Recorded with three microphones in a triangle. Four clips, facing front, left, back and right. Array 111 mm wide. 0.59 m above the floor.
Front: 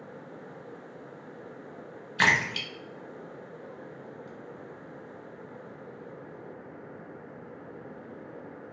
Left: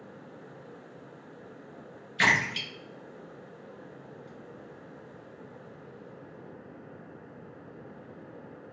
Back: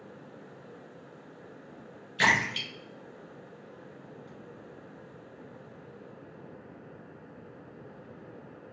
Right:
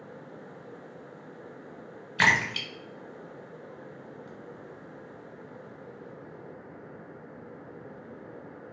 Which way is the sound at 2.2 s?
50° right.